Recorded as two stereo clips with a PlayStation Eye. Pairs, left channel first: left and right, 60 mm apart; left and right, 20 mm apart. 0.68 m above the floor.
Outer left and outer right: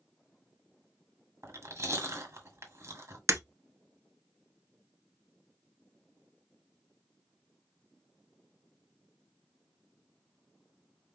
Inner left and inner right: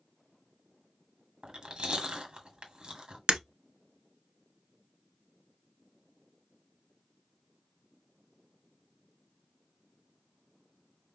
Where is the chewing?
50° right (ahead or behind), 1.8 m.